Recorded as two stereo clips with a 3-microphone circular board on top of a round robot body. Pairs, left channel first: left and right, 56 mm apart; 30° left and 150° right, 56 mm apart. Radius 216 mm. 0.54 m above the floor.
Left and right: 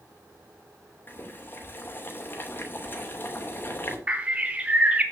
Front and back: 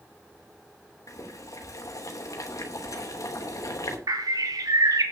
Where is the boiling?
40° left, 3 m.